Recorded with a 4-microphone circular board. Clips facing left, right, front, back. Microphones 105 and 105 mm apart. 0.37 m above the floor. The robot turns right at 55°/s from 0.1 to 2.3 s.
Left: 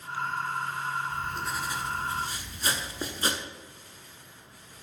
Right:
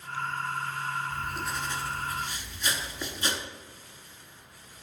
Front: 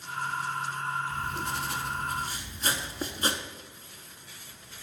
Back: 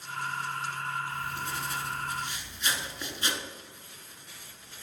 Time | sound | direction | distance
1.1 | writing | 20° right | 0.7 m